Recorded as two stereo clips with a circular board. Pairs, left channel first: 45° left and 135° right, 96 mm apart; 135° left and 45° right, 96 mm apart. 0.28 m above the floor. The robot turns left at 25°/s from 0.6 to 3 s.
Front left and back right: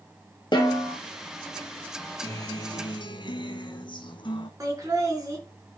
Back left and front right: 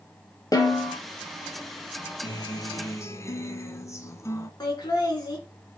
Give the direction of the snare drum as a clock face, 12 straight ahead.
9 o'clock.